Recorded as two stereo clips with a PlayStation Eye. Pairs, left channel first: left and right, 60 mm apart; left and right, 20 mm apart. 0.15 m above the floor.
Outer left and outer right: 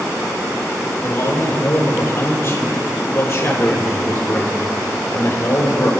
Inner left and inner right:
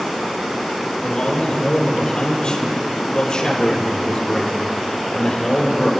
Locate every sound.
1.0 s a man speaking: 40° left (ahead or behind), 4.5 m